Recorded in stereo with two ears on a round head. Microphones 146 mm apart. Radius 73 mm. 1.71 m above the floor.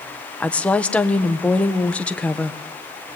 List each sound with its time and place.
0.4 s a woman speaking: 10° left (ahead or behind), 1.3 m